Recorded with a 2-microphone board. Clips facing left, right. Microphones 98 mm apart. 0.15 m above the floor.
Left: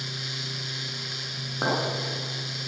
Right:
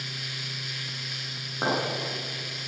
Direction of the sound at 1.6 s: 10° left (ahead or behind).